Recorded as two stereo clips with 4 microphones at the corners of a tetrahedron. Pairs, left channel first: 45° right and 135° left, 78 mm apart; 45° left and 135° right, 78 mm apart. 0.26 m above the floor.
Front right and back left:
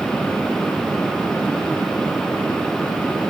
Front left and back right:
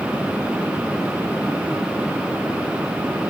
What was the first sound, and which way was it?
Only background noise.